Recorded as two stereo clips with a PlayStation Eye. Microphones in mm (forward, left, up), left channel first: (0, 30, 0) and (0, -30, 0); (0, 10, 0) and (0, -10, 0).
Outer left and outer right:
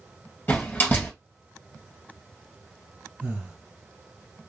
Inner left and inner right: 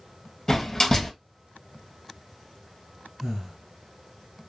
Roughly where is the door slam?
Left.